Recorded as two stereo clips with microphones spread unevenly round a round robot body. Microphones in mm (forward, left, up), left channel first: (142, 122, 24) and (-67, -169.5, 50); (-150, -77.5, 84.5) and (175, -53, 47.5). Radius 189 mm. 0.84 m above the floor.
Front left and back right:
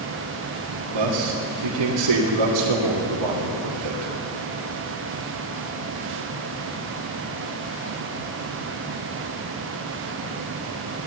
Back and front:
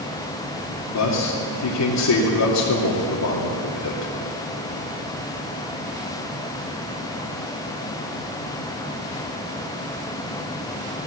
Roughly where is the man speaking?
Behind right.